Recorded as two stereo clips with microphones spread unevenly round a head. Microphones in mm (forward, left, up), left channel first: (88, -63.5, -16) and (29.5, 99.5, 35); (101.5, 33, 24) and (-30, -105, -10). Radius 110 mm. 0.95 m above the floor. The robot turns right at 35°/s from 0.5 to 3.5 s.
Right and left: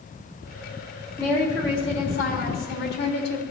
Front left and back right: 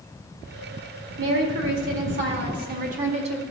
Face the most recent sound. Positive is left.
turn(degrees=-70)